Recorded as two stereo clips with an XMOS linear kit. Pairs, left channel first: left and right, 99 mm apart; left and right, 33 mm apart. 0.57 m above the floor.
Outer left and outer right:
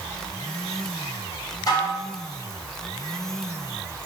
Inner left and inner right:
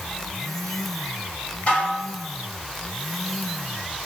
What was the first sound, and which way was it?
Dishes clattering, 40° left (ahead or behind).